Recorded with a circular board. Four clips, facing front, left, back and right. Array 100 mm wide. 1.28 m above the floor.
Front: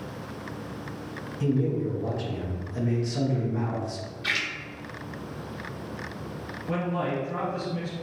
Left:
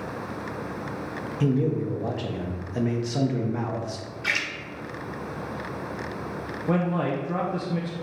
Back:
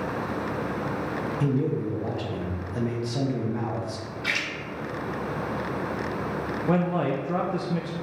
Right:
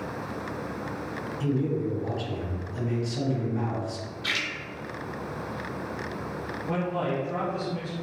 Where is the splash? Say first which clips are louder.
Left 4 dB, back 1 dB; 110° left, 0.9 m.